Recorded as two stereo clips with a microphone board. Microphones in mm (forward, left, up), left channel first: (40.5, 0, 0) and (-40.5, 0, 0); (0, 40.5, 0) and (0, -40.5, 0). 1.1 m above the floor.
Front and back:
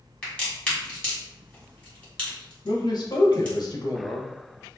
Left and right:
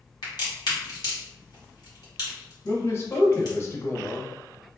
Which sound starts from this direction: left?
A crack, at 0.2 s.